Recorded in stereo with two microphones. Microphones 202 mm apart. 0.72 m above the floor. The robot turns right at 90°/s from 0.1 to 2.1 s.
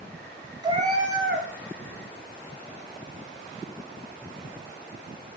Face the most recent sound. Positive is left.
turn(degrees=-30)